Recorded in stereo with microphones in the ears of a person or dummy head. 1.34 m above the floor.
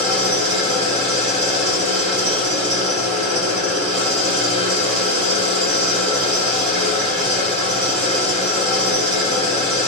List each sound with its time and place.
0.0 s an engine running: 55° right (ahead or behind), 3.5 m